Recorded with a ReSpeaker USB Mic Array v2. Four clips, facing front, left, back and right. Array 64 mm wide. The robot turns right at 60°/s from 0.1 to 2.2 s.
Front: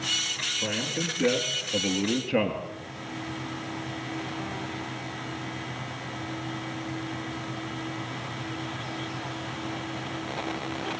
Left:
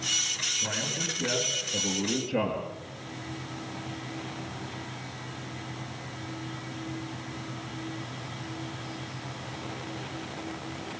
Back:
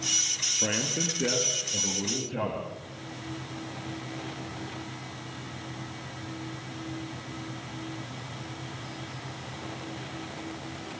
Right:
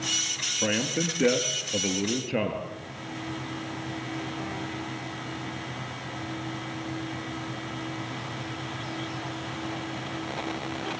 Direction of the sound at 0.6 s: 115° right.